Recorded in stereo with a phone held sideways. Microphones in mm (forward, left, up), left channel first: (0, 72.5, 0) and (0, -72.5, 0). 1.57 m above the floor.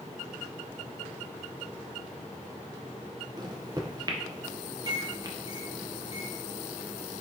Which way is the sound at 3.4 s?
30° right (ahead or behind).